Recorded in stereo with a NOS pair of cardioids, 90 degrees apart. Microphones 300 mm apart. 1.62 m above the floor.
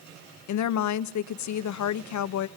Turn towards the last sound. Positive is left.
turn(degrees=65)